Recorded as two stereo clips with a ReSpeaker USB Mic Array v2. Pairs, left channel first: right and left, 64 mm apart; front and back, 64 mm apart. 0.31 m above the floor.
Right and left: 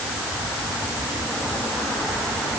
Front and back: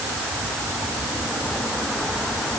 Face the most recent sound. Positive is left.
No sound to turn to.